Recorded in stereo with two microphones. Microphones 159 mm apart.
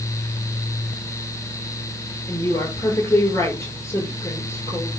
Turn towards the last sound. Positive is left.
turn(degrees=15)  # may be behind; listen again after turning